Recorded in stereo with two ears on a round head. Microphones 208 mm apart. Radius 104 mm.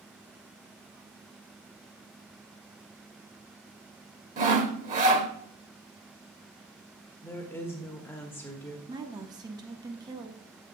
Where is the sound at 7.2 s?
10° left (ahead or behind), 0.8 m.